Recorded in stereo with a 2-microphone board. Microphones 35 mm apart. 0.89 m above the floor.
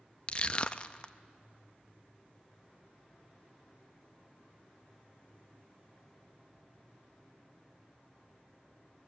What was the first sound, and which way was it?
Crushing, 30° left (ahead or behind).